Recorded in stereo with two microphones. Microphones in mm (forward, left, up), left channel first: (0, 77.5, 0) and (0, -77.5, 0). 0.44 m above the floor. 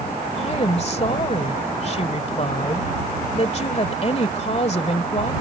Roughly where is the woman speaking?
Left.